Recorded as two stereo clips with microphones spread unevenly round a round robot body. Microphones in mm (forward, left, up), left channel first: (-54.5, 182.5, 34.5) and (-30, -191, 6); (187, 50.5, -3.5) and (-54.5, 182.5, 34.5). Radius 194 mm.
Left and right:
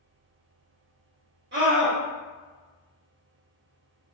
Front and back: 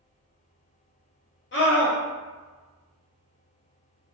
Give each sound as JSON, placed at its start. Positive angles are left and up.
{"t": 1.5, "sound": "a scream", "azimuth_deg": -40, "distance_m": 0.7}